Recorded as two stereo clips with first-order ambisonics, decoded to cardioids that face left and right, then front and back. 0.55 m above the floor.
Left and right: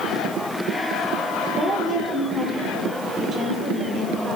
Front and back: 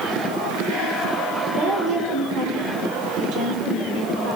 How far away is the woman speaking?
About 2 m.